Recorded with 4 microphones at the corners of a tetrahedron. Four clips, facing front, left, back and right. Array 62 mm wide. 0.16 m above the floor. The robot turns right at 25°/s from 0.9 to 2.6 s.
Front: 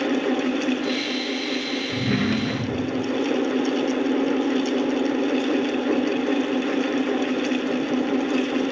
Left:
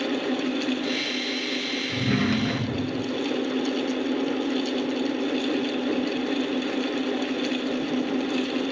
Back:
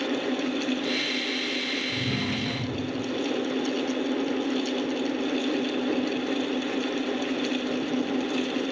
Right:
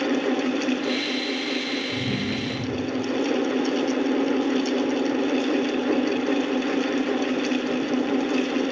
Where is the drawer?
30° left, 0.8 m; by 3.1 s 45° left, 0.8 m.